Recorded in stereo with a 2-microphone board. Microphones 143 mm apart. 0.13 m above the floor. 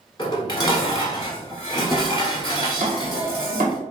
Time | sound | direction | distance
0.2 | dishes clattering | 30° left (ahead or behind) | 1.2 m
2.8 | chopping | 75° right (ahead or behind) | 1.7 m